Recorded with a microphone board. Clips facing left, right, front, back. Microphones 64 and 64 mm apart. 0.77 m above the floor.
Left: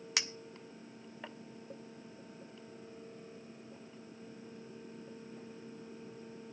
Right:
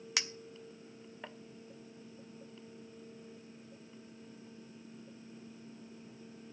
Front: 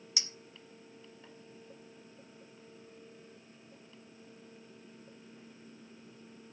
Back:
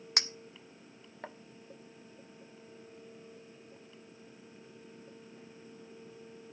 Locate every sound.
0.2 s a clink: straight behind, 0.6 m